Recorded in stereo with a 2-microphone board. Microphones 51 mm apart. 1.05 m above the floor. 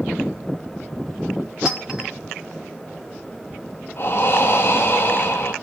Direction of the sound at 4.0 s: 50° left (ahead or behind).